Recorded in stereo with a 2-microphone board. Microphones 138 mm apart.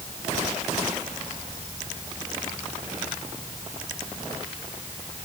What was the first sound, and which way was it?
Only background noise.